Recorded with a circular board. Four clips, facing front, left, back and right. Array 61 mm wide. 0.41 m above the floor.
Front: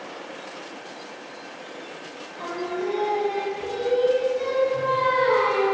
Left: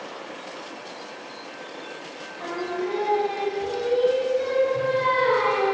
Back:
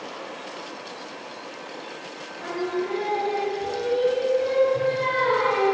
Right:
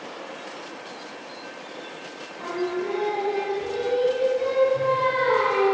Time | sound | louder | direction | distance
2.4 | singing | right 1 dB, back 1 dB | 5° left | 2.0 m